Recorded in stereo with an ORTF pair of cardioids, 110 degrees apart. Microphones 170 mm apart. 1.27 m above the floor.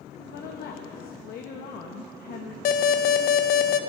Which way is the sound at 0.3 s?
70° left.